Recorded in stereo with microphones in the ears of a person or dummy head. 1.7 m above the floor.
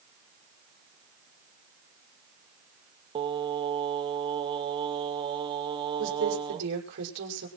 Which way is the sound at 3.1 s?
25° right (ahead or behind).